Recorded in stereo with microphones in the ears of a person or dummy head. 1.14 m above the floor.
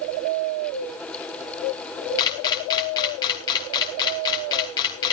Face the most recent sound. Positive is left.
turn(degrees=25)  # may be behind; listen again after turning